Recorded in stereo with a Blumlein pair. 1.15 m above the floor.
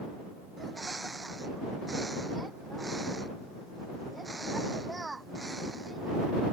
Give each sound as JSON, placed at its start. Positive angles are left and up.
{"t": 0.6, "sound": "a bird", "azimuth_deg": -10}